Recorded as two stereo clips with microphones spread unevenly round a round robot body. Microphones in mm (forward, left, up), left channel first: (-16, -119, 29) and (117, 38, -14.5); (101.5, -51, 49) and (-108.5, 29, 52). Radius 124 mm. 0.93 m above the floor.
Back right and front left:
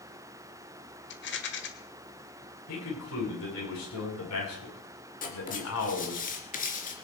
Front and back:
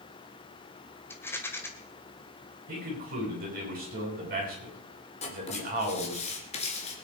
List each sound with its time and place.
1.1 s a rattle: 100° right, 2 m
2.7 s a man speaking: 150° right, 8 m
5.2 s writing: 85° right, 3 m